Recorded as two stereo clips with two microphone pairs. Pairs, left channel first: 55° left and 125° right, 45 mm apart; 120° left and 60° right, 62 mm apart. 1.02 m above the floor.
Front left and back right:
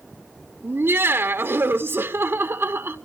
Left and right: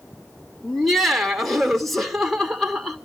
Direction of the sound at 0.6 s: 155° right.